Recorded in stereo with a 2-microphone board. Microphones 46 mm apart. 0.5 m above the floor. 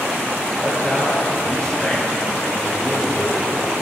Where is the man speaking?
20° left (ahead or behind), 8.5 m.